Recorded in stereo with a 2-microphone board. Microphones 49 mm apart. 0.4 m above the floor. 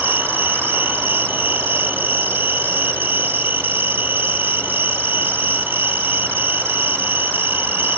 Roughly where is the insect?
Right.